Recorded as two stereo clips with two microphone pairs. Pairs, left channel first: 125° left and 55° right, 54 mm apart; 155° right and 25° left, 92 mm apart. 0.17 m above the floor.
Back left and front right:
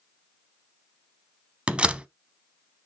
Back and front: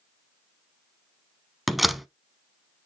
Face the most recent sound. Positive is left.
turn(degrees=-60)